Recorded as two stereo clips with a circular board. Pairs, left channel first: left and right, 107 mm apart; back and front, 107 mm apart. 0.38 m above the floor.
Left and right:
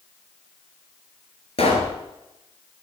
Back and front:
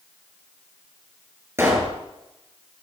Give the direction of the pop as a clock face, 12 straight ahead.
10 o'clock.